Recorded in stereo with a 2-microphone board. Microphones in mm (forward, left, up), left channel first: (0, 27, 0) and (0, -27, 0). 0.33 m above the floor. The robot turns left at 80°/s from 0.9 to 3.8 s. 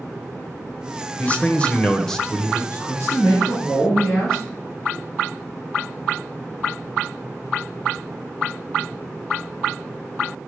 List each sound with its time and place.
1.2 s a man speaking: 25° left (ahead or behind), 0.9 m; by 2.6 s 5° right (ahead or behind), 0.9 m
2.7 s a man speaking: 85° left, 4 m; by 4.4 s 5° right, 4 m